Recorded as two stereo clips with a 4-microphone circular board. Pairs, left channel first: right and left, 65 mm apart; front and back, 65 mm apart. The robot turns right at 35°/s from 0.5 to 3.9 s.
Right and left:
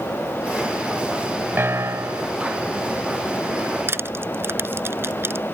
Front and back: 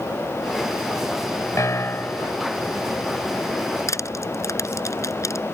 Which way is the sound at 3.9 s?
35° left.